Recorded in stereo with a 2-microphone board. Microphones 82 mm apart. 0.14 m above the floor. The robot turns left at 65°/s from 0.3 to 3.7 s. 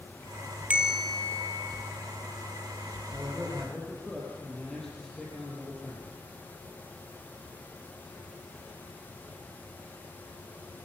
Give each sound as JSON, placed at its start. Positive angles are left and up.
{"t": 0.7, "sound": "a bell", "azimuth_deg": -165, "distance_m": 2.5}
{"t": 3.1, "sound": "a man speaking", "azimuth_deg": -145, "distance_m": 4.5}